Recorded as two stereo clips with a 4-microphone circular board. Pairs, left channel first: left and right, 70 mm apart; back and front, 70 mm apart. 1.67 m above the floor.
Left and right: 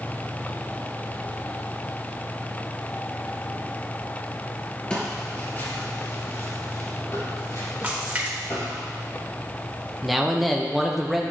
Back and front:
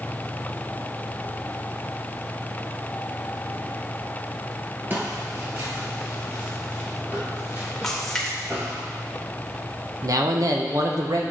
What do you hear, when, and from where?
4.9 s footsteps: 25° left, 1.9 m; by 8.8 s 55° left, 4.5 m
7.8 s a splash: 110° right, 1.4 m
10.0 s a man speaking: straight ahead, 1.0 m